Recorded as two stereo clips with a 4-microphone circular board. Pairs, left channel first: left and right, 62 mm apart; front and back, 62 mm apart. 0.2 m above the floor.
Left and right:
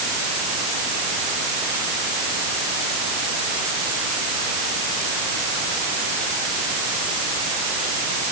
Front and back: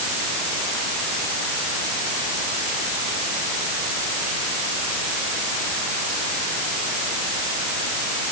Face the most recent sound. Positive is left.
No sound to turn to.